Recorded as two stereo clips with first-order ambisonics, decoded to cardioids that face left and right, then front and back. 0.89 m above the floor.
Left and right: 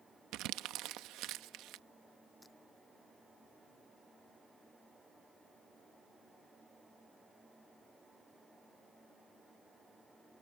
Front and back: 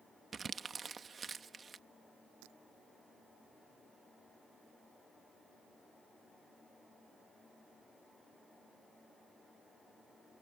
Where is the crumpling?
110° right.